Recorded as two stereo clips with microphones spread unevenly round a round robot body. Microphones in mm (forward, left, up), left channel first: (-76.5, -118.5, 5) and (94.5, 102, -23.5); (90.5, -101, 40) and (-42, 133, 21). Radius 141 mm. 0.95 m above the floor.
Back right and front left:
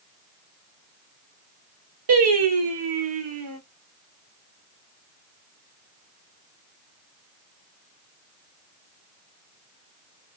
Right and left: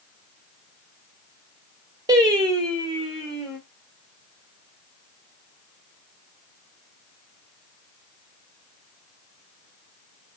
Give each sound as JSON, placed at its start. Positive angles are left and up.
{"t": 2.1, "sound": "singing", "azimuth_deg": 45, "distance_m": 1.5}